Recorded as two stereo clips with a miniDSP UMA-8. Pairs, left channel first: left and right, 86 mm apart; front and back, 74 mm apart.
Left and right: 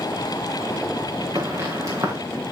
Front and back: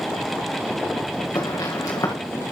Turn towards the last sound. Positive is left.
turn(degrees=-40)